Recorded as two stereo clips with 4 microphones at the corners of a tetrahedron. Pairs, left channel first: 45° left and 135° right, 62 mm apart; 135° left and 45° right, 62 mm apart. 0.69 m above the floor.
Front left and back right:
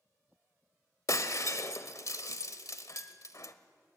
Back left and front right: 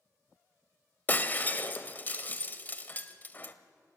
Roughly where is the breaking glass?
Left.